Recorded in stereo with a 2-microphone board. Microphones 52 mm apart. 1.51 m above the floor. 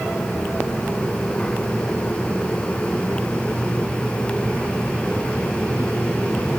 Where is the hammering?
I don't hear hammering.